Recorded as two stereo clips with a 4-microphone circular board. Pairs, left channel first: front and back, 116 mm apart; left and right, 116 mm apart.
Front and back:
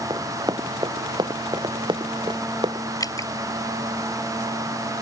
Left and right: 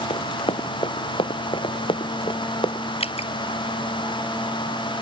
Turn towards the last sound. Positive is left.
turn(degrees=60)